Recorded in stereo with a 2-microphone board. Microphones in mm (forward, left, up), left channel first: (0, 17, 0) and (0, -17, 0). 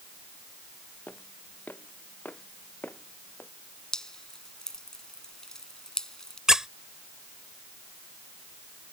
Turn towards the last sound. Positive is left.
turn(degrees=-20)  # may be behind; listen again after turning